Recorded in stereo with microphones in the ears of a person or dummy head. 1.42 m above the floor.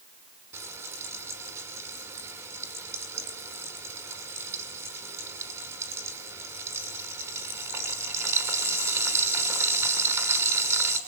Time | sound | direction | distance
0.5 | frying | 15° right (ahead or behind) | 5 m